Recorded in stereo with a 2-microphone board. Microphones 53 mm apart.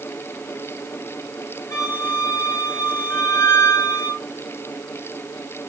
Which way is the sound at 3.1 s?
55° left (ahead or behind).